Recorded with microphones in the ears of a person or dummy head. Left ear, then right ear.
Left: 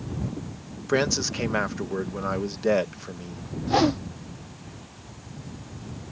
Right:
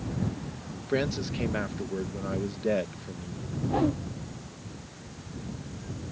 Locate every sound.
0.9 s a man speaking: 45° left (ahead or behind)
3.7 s a whoosh: 65° left (ahead or behind)